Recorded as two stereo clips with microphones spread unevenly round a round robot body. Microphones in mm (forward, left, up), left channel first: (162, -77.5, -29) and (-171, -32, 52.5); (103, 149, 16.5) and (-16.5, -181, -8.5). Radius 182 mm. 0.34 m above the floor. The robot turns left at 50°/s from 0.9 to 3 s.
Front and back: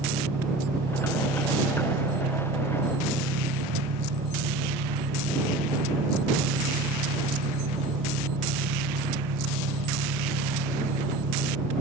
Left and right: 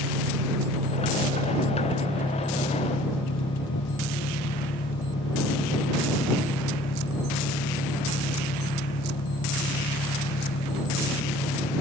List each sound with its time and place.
0.0 s an engine running: 125° right; by 11.8 s 130° left